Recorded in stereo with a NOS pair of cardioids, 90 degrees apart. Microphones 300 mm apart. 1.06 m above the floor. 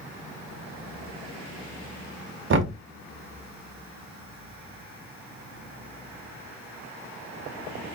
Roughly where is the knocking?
Ahead right.